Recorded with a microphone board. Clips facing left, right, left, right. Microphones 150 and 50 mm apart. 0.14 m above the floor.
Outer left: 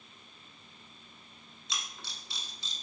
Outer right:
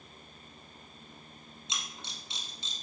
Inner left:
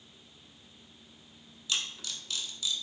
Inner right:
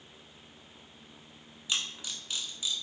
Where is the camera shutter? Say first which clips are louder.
Even, inner right 1 dB; 25° right (ahead or behind), 0.8 m.